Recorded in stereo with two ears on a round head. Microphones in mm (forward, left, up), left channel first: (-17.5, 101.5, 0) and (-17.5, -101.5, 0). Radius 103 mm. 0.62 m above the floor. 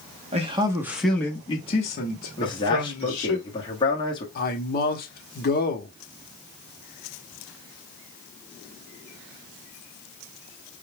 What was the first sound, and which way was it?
A man speaking, 30° right (ahead or behind).